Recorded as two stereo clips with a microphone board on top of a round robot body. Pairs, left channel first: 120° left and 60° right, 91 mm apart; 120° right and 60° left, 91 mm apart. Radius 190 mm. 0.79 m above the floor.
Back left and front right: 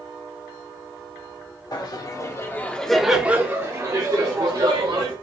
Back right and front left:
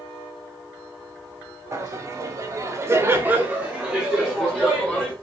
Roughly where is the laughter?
Left.